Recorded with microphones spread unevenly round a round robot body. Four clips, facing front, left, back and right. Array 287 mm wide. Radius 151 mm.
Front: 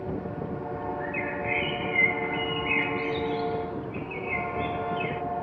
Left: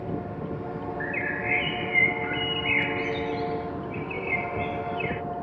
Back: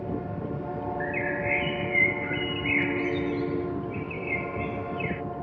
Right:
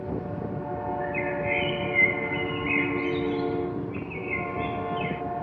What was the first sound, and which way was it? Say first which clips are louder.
A bird: right 2 dB, back 2 dB; 80° left.